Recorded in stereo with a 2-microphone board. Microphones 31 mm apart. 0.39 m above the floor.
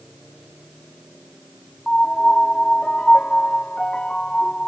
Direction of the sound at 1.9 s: 35° left (ahead or behind).